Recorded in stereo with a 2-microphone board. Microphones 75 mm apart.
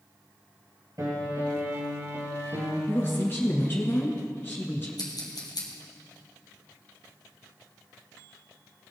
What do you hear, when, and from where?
1.0 s a piano: 50° right (ahead or behind), 3 m
2.9 s a woman speaking: 30° left (ahead or behind), 1.2 m
5.0 s scissors: 65° left (ahead or behind), 2 m